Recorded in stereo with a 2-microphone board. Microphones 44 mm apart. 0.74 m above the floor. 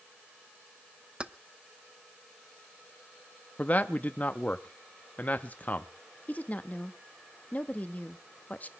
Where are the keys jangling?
25° right (ahead or behind), 0.6 m.